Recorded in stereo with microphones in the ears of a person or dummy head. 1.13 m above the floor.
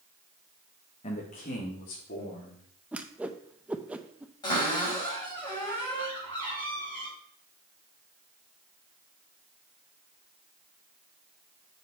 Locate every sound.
1.0 s a man speaking: 35° left (ahead or behind), 1.3 m; by 2.6 s 40° left (ahead or behind), 3.5 m
2.9 s a whoosh: 5° right (ahead or behind), 0.6 m
4.4 s a cupboard door: 20° left (ahead or behind), 5.5 m